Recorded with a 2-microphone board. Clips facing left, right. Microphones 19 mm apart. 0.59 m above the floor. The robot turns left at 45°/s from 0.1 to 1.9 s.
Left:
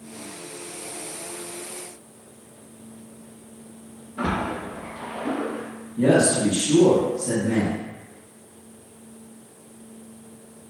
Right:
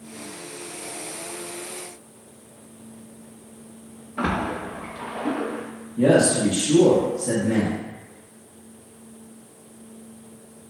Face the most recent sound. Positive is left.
turn(degrees=-30)  # may be behind; listen again after turning